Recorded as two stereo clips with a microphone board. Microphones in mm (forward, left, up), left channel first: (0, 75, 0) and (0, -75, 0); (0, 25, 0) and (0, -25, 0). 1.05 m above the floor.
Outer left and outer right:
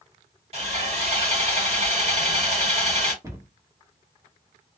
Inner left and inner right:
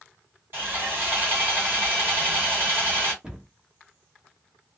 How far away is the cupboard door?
About 1.2 m.